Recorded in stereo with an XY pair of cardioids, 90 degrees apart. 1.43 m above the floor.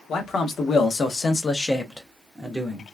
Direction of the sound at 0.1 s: 65° left.